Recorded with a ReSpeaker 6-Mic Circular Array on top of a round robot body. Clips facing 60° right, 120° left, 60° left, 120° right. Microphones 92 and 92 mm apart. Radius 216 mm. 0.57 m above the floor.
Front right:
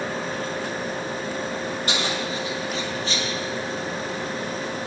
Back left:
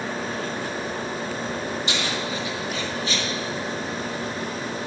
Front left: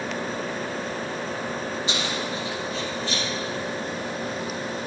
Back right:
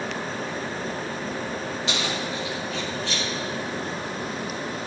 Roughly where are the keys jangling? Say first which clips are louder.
Front right 1 dB, even; right.